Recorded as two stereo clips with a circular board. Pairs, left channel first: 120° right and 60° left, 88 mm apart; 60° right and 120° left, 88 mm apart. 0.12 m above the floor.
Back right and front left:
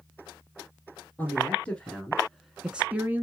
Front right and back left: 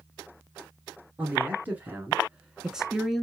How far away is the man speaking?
About 1.6 m.